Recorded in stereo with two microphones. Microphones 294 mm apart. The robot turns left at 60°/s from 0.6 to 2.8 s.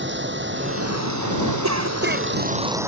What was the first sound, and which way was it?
Running water, 40° right.